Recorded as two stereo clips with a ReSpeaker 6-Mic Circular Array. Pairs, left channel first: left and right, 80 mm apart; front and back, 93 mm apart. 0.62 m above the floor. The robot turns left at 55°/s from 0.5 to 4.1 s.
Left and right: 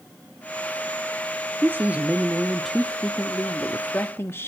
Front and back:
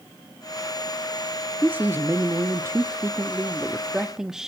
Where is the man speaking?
120° right, 0.9 m; by 4.5 s 100° left, 0.9 m.